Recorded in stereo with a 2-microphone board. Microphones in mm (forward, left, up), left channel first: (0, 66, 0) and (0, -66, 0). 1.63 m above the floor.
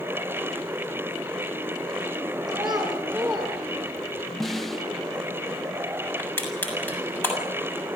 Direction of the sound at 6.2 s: 15° left (ahead or behind).